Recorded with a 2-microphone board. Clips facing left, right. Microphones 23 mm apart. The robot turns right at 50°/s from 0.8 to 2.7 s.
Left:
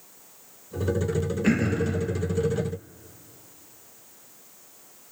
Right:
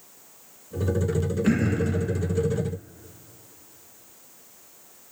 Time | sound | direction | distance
1.4 | throat clearing | 25° left (ahead or behind) | 1.4 m